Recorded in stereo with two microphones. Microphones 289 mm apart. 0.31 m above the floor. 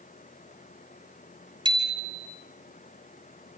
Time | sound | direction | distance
1.6 | a bicycle bell | 15° right (ahead or behind) | 4.5 m